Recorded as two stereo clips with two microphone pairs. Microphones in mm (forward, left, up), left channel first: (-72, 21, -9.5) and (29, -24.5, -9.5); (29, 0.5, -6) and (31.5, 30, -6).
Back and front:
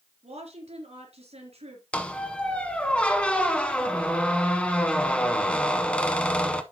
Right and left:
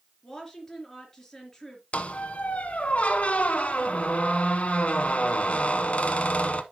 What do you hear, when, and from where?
0.2 s a woman speaking: 20° right, 4 m
1.9 s a squeak: 125° right, 0.9 m